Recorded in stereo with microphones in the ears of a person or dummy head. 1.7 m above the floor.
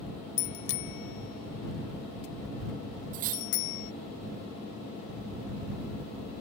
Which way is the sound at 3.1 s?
40° right (ahead or behind).